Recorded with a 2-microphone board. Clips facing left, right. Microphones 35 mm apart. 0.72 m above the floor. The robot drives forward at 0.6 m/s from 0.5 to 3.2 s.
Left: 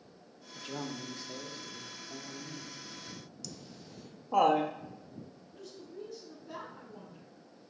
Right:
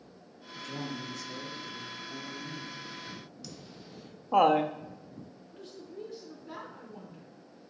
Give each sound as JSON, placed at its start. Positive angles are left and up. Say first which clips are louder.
{"t": 0.6, "sound": "a man speaking", "louder": "right 2 dB", "side_deg": 40, "distance_m": 0.6}
{"t": 3.4, "sound": "laughter", "louder": "right 1 dB", "side_deg": -25, "distance_m": 0.6}
{"t": 5.5, "sound": "a woman speaking", "louder": "right 2 dB", "side_deg": -35, "distance_m": 2.5}